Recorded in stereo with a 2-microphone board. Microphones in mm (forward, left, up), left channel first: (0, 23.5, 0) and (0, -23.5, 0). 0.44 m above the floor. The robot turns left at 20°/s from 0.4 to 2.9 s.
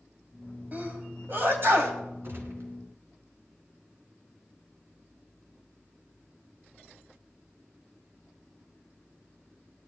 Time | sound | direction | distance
0.7 | a sneeze | 40° right (ahead or behind) | 3 m
2.2 | a gunshot | 50° right (ahead or behind) | 3 m